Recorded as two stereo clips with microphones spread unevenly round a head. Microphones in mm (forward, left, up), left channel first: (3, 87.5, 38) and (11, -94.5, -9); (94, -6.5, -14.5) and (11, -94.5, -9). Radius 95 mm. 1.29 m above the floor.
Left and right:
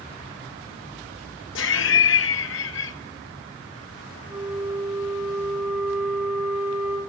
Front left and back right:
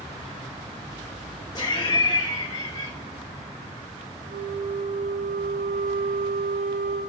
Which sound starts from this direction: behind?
A flute, at 4.3 s.